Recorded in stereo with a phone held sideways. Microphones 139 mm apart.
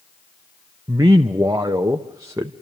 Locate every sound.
0.9 s a man speaking: 25° right (ahead or behind), 0.7 m